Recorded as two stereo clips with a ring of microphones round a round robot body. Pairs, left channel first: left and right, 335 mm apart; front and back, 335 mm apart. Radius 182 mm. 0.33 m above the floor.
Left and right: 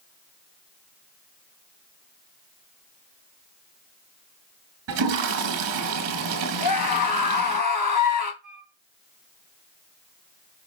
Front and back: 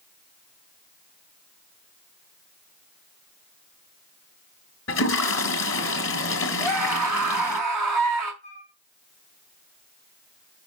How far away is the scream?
About 3.5 m.